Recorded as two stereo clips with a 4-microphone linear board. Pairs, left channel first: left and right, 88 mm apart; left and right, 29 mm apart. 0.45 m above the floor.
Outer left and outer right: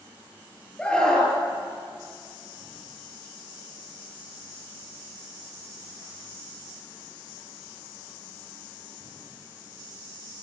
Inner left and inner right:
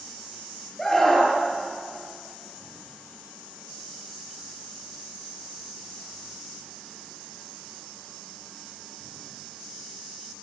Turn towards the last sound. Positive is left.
turn(degrees=10)  # may be behind; listen again after turning